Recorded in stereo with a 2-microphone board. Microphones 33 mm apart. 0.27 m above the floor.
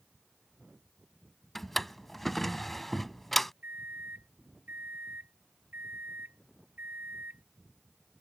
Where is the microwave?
70° right (ahead or behind).